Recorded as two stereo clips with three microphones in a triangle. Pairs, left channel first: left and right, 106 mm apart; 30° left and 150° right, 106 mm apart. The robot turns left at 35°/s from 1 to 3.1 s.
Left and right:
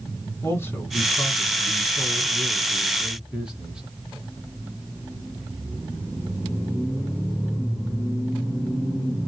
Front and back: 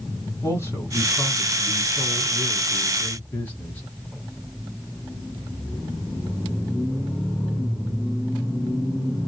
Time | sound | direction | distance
0.4 | a man speaking | 55° left | 1.3 m